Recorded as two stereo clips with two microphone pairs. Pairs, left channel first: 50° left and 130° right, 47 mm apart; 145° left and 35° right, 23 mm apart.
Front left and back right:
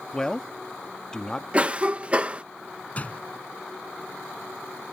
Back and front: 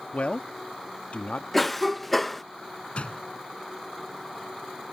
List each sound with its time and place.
0.1 s a man speaking: 125° left
1.5 s a cough: 145° right
3.0 s a door slam: 110° left